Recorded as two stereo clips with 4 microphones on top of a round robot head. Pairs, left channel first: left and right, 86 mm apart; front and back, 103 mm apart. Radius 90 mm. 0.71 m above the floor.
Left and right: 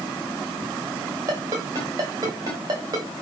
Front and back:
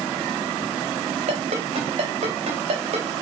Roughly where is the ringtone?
Behind right.